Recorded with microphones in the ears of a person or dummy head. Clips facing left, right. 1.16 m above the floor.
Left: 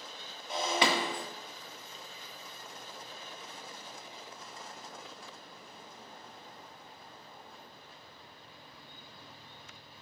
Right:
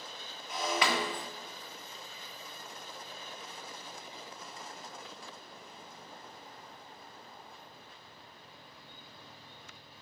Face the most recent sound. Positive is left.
turn(degrees=30)  # may be behind; listen again after turning